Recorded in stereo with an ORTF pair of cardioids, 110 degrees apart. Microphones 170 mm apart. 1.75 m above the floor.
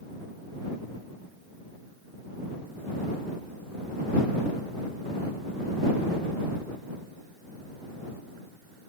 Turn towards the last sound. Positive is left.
No sound to turn to.